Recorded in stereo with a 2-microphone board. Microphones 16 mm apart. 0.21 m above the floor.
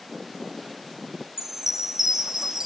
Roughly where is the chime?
Right.